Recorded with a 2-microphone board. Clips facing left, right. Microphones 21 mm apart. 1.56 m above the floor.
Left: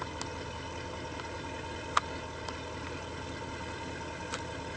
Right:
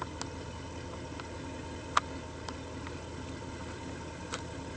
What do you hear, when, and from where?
0.0 s an engine running: 30° left (ahead or behind)